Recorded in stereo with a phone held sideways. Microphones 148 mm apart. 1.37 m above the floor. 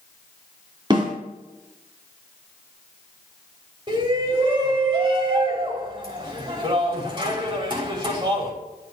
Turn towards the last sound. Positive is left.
turn(degrees=-30)  # may be behind; listen again after turning